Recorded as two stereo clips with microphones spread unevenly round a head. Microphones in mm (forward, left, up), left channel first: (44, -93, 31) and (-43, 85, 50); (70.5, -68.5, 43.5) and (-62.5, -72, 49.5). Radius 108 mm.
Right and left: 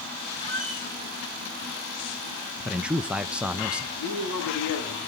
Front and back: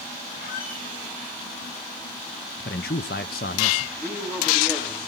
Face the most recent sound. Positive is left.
turn(degrees=-75)